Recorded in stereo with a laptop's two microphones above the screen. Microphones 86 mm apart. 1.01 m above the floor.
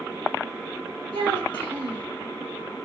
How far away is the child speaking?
About 4 m.